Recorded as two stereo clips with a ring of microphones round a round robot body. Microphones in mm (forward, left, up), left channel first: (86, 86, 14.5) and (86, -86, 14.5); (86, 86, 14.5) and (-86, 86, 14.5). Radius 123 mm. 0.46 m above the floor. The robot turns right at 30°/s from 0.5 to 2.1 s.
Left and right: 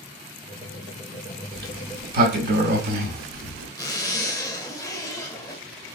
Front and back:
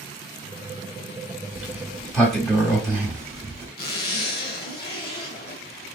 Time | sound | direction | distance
1.5 | a sliding door | 105° right | 0.9 m
3.8 | a zipper | 20° left | 1.2 m